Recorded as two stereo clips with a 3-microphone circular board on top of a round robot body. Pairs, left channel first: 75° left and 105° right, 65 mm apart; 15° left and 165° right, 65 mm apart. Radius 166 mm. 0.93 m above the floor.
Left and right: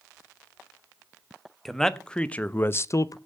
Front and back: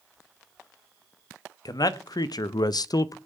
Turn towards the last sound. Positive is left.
turn(degrees=45)